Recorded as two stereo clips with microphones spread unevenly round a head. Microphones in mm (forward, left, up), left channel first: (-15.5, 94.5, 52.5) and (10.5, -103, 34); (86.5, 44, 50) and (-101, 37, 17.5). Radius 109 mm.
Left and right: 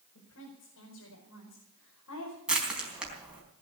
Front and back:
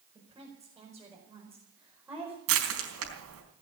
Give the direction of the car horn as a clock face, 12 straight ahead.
No car horn in this recording.